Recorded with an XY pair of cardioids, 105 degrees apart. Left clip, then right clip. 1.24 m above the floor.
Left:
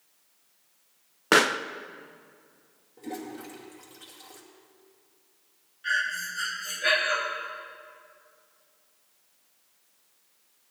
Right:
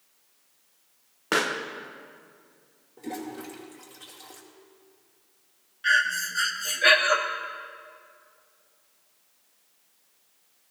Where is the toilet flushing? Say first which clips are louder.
Right 2 dB; 15° right, 2 m.